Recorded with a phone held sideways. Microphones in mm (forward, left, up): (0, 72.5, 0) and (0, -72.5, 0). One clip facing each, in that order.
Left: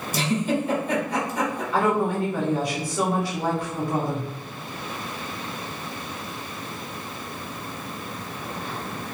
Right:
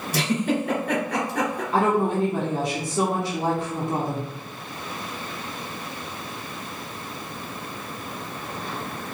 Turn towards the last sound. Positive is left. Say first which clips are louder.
# right 1 dB
turn(degrees=-35)  # may be behind; listen again after turning